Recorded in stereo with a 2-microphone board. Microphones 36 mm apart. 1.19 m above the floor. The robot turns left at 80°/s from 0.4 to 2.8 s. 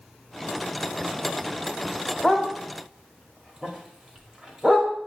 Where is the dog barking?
15° left (ahead or behind), 1.3 m; by 4.9 s 20° right (ahead or behind), 1.3 m.